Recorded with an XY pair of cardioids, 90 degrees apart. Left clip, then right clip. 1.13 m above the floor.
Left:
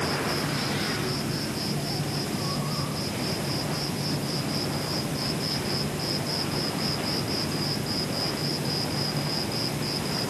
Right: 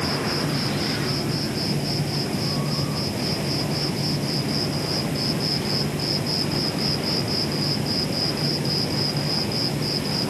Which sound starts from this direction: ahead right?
An insect, at 0.0 s.